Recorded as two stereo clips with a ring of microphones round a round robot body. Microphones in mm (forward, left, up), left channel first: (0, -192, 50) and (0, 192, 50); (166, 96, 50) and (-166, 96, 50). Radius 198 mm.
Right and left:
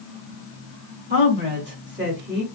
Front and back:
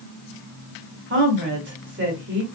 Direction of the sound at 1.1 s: 140° left.